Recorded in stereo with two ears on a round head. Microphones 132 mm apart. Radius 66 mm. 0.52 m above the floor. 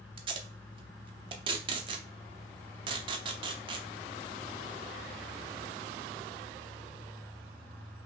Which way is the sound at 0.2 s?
35° right (ahead or behind).